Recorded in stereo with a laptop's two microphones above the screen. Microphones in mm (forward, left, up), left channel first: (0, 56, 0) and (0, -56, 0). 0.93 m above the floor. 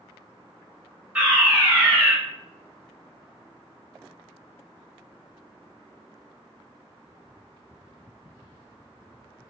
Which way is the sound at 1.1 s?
15° right (ahead or behind).